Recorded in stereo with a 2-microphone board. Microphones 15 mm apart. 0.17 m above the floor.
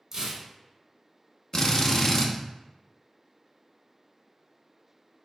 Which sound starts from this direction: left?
A drill, at 1.5 s.